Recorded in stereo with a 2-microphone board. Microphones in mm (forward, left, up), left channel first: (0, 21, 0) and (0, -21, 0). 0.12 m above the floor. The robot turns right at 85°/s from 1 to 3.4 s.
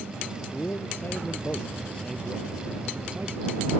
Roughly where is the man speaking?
Left.